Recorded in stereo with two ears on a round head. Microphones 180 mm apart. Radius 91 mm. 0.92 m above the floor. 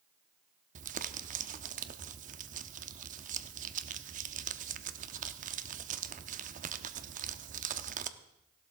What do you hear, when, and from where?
0.8 s crumpling: 40° right (ahead or behind), 0.7 m